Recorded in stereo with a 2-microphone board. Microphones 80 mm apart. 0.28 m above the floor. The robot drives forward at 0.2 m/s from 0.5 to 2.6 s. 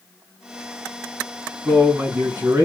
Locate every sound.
1.6 s a man speaking: 30° right (ahead or behind), 2.5 m; by 2.6 s 35° right (ahead or behind), 2.5 m